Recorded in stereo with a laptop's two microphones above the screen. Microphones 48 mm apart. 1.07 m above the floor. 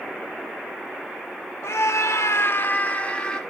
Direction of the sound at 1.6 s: 75° left (ahead or behind).